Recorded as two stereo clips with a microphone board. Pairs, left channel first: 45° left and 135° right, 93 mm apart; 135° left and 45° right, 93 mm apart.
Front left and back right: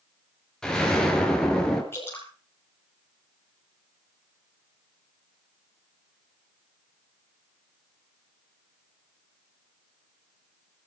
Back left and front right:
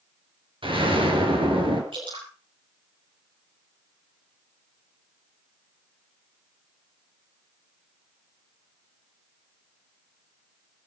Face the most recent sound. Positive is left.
turn(degrees=-20)